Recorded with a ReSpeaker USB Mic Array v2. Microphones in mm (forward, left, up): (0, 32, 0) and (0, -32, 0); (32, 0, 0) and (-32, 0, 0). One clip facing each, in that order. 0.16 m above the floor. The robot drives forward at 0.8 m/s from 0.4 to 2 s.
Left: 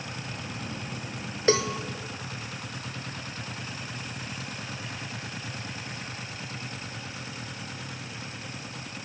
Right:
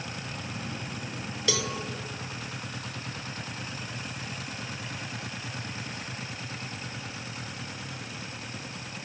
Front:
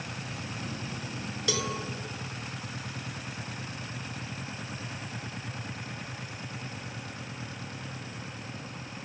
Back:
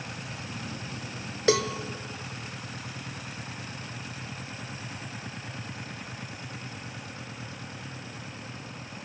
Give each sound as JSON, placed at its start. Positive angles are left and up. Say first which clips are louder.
{"t": 1.5, "sound": "a cowbell", "louder": "left 7 dB, back 8 dB", "azimuth_deg": 140, "distance_m": 0.5}